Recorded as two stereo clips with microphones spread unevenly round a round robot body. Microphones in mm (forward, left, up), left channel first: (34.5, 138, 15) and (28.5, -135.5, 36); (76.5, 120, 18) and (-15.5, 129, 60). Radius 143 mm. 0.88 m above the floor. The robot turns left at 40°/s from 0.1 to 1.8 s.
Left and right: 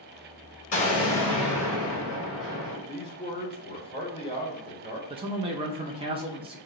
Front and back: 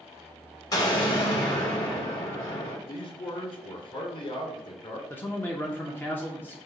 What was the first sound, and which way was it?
An explosion, 30° left.